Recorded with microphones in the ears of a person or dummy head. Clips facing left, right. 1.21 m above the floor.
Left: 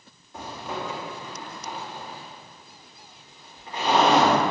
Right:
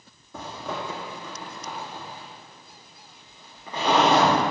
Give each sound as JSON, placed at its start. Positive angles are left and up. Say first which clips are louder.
{"t": 0.3, "sound": "a zipper", "louder": "even", "side_deg": -65, "distance_m": 3.0}